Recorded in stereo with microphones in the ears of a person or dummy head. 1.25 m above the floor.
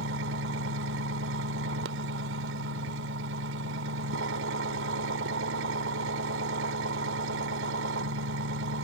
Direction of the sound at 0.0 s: 80° right.